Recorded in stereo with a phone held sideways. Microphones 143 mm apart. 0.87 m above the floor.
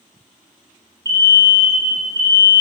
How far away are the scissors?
I don't hear scissors.